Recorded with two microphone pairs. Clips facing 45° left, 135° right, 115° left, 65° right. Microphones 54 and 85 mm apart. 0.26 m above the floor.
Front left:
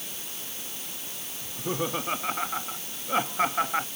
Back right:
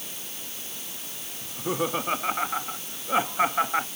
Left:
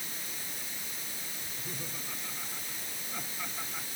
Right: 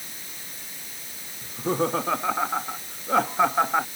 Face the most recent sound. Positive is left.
turn(degrees=-50)